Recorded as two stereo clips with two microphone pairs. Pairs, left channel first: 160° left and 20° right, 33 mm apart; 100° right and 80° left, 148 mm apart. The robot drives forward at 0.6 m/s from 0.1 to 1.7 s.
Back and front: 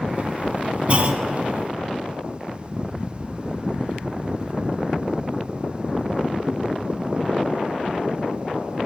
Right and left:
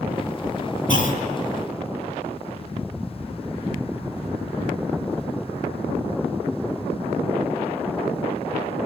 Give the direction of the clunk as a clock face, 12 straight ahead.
2 o'clock.